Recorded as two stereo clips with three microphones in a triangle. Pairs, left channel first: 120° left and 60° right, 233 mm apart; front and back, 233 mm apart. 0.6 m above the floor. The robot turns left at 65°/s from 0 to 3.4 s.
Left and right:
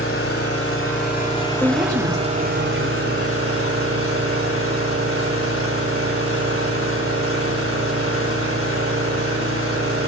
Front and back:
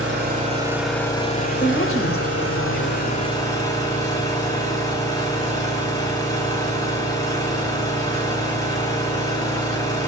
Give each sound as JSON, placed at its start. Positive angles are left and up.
{"t": 0.0, "sound": "an engine running", "azimuth_deg": 145, "distance_m": 3.0}
{"t": 1.6, "sound": "a woman speaking", "azimuth_deg": 35, "distance_m": 2.5}